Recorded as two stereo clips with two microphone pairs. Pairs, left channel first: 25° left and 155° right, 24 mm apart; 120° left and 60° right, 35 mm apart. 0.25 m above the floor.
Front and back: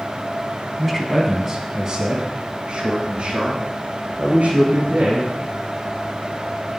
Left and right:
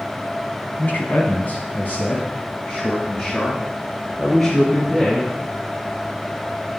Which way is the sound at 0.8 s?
110° left.